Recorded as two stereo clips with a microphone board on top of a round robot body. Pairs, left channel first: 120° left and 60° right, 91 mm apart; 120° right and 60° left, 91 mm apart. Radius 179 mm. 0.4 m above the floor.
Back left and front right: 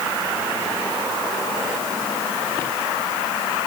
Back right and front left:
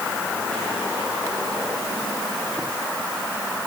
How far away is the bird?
No bird in this recording.